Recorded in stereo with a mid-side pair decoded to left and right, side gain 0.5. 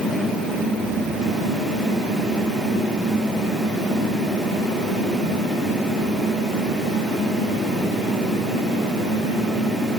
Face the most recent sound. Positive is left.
No sound to turn to.